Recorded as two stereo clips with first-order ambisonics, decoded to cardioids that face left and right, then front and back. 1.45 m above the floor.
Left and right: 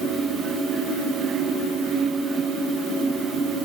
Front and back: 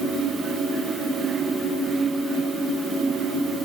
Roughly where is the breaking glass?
No breaking glass in this recording.